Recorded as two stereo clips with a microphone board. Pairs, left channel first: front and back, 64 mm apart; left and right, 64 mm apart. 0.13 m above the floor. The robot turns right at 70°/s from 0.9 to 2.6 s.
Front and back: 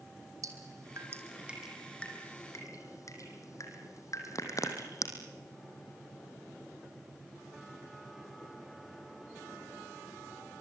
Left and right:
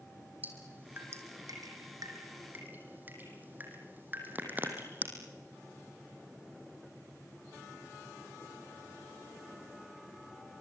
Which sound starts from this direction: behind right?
Dripping, at 0.4 s.